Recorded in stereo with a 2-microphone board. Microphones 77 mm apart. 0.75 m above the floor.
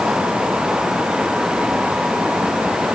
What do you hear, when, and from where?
Only background noise.